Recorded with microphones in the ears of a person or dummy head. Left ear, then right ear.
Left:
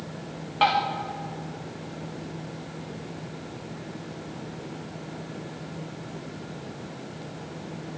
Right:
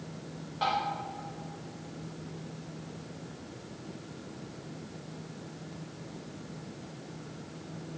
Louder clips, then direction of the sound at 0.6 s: Left 8 dB; 25° left (ahead or behind).